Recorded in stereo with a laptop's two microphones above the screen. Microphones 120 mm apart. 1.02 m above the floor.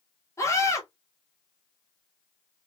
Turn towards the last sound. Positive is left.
turn(degrees=25)  # may be behind; listen again after turning